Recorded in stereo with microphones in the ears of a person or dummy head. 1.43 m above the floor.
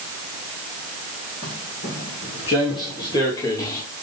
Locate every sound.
1.4 s footsteps: 30° left (ahead or behind), 1.5 m; by 3.8 s 15° left (ahead or behind), 2.5 m